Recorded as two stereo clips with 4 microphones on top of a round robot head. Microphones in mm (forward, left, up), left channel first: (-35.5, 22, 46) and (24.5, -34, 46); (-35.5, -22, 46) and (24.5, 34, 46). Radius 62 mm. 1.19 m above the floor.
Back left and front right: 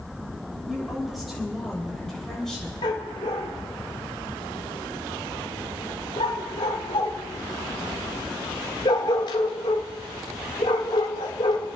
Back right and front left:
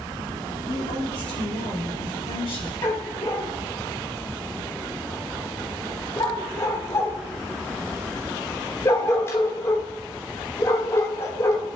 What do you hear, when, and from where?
0.7 s a woman speaking: 130° right, 6.5 m; by 2.8 s 140° right, 7 m
2.8 s a dog barking: 170° left, 1.4 m